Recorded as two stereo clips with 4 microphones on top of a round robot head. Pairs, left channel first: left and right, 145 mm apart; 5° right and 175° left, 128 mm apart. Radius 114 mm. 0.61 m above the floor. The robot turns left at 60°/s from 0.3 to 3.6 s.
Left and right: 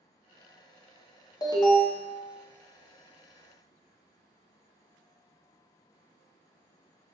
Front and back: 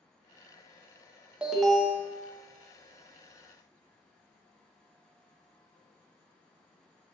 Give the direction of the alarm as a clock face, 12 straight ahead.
9 o'clock.